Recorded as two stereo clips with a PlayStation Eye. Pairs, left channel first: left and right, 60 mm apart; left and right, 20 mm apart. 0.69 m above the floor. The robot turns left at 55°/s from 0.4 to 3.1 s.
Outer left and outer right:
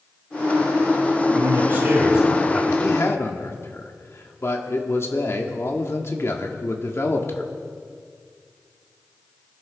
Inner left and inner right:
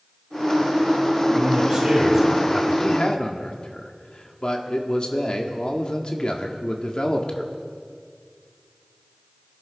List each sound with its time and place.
1.4 s a man speaking: 120° right, 4.5 m; by 2.7 s 165° left, 4.5 m
2.8 s a man speaking: 55° left (ahead or behind), 1.6 m; by 7.5 s 45° left (ahead or behind), 1.6 m